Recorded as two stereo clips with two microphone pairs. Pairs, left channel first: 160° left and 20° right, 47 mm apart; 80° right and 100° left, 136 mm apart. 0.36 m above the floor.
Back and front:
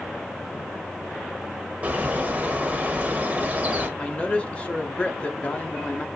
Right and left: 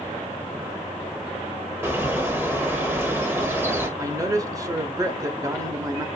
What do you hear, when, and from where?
1.8 s a bird: 30° left, 1.4 m
4.0 s a man speaking: 135° left, 0.9 m